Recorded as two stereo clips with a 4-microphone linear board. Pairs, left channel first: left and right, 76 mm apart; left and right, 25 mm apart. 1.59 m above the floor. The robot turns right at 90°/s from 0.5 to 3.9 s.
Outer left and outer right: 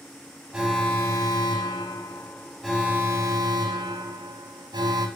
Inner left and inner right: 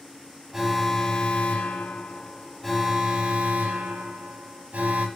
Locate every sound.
0.5 s an alarm: 10° right, 3 m; by 5.1 s 65° right, 3 m